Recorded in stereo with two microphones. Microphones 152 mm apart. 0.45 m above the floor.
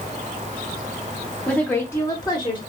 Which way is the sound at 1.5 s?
5° left (ahead or behind).